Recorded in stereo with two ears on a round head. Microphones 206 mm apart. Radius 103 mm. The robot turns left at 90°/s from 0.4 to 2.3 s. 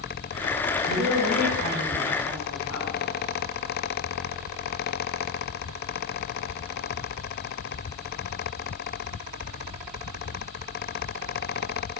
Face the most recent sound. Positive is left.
turn(degrees=90)